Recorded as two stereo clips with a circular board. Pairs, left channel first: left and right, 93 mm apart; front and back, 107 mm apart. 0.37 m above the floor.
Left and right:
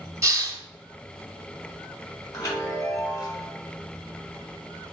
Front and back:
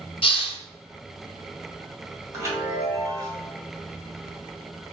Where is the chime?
130° left, 1.8 m.